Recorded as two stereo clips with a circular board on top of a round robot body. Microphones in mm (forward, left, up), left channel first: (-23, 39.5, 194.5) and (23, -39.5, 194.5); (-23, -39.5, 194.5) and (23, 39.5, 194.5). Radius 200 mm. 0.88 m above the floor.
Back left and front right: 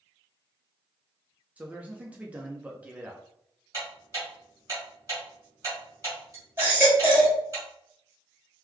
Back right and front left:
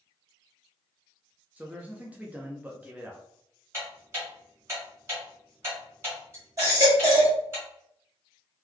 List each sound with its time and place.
1.6 s a man speaking: straight ahead, 0.8 m
3.7 s ticking: straight ahead, 1.8 m
6.6 s a baby crying: 5° left, 1.7 m